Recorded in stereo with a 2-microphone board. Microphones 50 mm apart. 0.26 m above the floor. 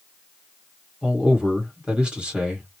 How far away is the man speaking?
About 1.6 m.